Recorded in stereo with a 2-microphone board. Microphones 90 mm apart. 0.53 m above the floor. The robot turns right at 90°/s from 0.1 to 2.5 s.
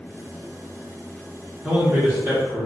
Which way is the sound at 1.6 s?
Centre (ahead or behind).